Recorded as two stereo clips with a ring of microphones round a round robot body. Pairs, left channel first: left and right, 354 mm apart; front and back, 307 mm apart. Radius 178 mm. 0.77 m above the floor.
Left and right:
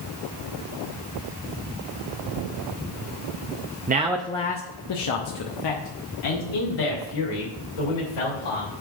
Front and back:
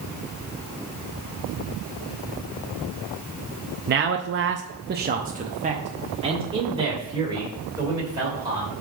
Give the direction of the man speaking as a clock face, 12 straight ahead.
5 o'clock.